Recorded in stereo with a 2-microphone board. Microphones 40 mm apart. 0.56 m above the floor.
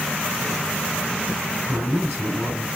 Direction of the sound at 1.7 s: 45° right (ahead or behind).